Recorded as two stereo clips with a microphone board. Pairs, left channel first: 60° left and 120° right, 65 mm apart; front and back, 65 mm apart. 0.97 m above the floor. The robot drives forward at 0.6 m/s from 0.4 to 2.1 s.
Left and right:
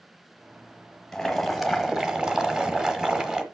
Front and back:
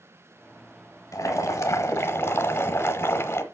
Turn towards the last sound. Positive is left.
turn(degrees=-40)